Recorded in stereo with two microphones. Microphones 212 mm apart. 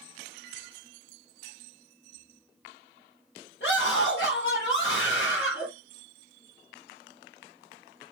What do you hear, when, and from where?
3.6 s a scream: 60° left (ahead or behind), 4.5 m